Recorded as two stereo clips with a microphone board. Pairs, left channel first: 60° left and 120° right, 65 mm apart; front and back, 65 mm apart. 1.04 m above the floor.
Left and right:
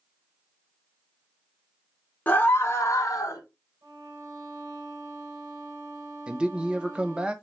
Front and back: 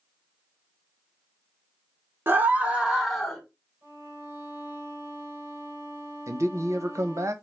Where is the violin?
135° right, 3 m.